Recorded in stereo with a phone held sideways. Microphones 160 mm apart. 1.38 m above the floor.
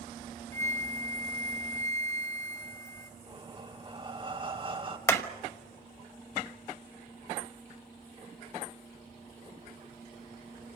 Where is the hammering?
20° left (ahead or behind), 1.2 m.